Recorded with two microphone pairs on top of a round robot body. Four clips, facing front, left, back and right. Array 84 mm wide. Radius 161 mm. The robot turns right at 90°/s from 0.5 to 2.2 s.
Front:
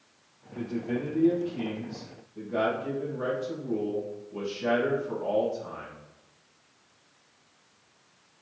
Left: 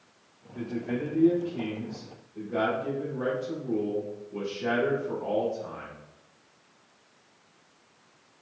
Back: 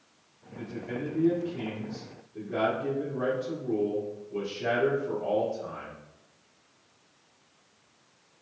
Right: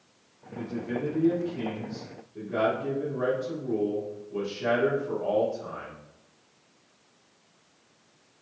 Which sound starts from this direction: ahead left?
A man speaking, at 0.6 s.